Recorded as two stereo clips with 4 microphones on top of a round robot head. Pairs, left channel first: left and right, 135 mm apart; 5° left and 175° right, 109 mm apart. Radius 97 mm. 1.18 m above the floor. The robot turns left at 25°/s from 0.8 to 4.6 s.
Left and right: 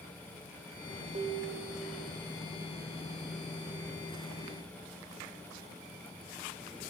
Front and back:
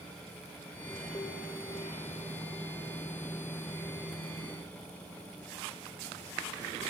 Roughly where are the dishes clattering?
Ahead right.